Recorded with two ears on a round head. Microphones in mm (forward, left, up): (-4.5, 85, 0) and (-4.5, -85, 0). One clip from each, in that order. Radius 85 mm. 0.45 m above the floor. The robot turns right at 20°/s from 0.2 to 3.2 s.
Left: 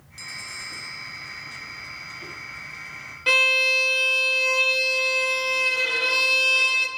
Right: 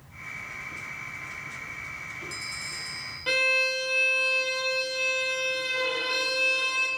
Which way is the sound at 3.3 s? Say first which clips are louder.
Left 6 dB; 30° left (ahead or behind).